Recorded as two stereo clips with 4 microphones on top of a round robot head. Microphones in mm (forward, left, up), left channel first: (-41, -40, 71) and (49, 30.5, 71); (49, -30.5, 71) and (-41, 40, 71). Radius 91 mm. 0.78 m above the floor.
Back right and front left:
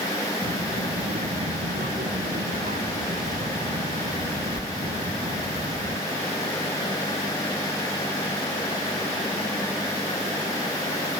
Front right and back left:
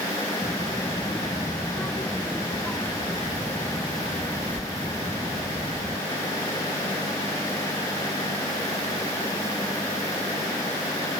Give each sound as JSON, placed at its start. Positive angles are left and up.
{"t": 0.4, "sound": "a child speaking", "azimuth_deg": 30}